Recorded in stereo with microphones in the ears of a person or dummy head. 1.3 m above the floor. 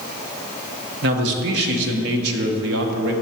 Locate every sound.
1.0 s a man speaking: 65° right (ahead or behind), 1.2 m